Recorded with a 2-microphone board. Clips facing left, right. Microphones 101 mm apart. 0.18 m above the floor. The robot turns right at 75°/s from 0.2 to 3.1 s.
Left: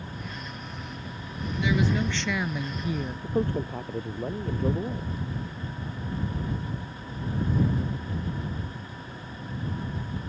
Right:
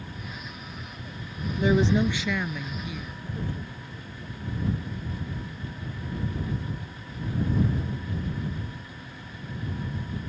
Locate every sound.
1.6 s a woman speaking: 55° right; by 3.1 s 60° left
3.2 s a man speaking: 65° left (ahead or behind)